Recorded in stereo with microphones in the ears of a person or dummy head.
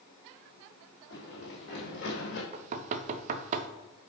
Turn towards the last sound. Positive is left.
turn(degrees=-40)  # may be behind; listen again after turning